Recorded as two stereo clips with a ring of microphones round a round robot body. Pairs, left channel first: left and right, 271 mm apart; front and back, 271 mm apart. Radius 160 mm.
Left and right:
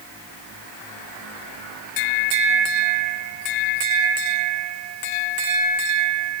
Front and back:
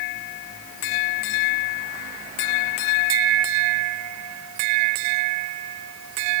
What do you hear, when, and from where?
Only background noise.